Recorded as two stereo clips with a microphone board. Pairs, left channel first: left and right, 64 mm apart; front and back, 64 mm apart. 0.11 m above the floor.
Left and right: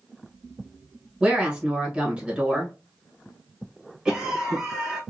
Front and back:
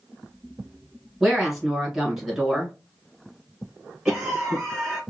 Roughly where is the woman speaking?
Right.